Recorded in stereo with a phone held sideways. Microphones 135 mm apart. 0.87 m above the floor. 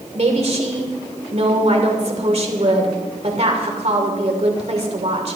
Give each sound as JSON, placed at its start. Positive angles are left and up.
{"t": 0.1, "sound": "a woman speaking", "side_deg": -55, "distance_m": 2.5}